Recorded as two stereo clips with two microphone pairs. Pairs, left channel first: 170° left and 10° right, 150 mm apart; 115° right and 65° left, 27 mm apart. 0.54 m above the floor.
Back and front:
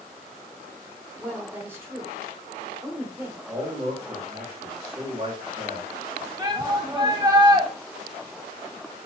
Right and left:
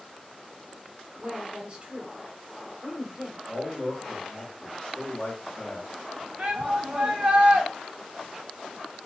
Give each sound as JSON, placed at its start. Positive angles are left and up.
{"t": 1.2, "sound": "a woman speaking", "azimuth_deg": 60, "distance_m": 1.0}
{"t": 3.5, "sound": "a man speaking", "azimuth_deg": -60, "distance_m": 2.0}
{"t": 6.4, "sound": "a shout", "azimuth_deg": 45, "distance_m": 1.0}